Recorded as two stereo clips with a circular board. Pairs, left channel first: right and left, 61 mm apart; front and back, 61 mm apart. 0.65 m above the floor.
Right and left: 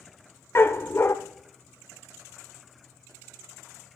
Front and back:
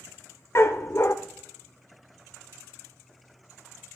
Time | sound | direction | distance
0.6 | a dog barking | 40° right | 0.8 m